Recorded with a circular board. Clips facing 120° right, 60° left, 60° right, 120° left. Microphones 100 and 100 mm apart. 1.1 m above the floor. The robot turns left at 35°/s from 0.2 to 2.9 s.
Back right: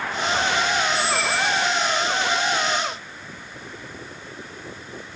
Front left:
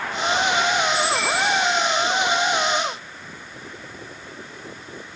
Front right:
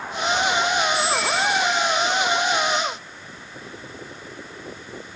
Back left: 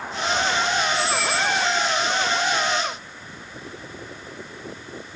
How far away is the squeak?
About 1.8 m.